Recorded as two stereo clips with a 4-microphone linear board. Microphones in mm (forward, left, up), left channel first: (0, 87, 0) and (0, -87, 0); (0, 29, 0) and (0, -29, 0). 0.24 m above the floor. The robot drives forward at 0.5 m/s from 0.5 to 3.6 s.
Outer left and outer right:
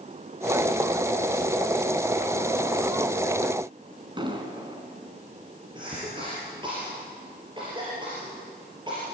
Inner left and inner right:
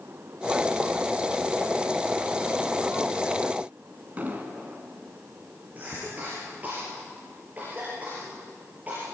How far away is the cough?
About 5.5 m.